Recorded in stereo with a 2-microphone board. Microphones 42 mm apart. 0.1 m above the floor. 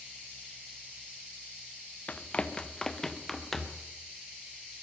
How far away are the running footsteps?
About 1.1 m.